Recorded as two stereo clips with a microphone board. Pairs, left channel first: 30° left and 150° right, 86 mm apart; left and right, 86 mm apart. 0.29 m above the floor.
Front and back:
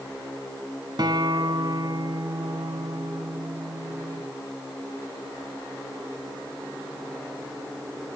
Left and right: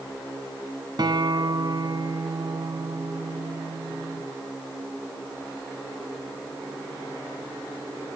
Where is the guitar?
120° right, 1.2 m.